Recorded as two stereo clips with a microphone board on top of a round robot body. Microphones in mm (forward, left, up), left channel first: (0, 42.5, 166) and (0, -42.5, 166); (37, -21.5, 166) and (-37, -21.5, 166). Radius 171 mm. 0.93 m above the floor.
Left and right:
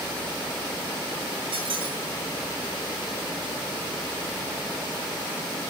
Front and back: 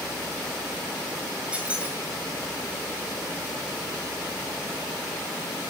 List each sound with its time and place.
1.5 s a squeak: 105° right, 6 m